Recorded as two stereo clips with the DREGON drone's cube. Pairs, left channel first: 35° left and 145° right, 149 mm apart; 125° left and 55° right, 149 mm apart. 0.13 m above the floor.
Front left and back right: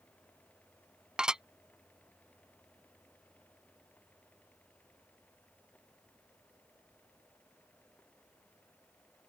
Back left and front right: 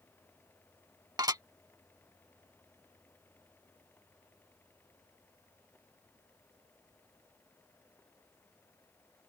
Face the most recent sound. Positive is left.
turn(degrees=-70)